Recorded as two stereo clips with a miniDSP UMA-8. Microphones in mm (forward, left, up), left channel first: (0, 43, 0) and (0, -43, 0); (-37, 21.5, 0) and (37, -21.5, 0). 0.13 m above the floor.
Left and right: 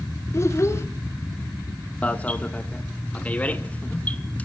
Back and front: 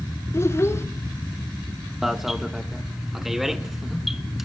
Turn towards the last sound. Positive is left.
turn(degrees=55)